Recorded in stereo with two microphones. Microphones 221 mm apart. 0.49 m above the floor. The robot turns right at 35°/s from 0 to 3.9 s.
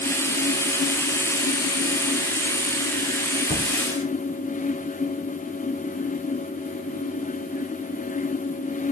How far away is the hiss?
About 4.5 m.